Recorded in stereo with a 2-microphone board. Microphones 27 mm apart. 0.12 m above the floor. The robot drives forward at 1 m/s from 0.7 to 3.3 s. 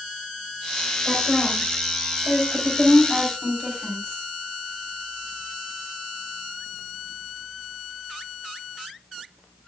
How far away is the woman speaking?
About 7 m.